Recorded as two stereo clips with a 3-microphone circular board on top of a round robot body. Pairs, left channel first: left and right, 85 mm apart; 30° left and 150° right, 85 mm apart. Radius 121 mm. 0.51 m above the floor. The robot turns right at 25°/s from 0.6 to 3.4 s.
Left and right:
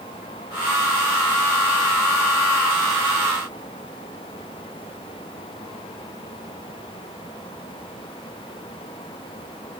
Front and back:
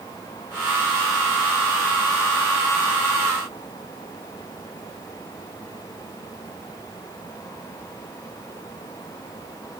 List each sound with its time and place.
Only background noise.